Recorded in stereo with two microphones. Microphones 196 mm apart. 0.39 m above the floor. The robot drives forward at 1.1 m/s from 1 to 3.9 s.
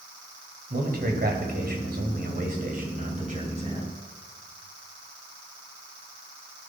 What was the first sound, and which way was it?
A man speaking, 50° right (ahead or behind).